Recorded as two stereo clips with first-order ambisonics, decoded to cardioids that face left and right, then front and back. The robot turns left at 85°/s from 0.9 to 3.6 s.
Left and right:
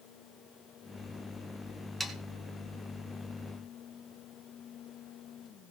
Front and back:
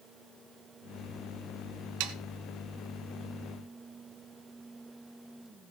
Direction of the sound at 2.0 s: 175° right.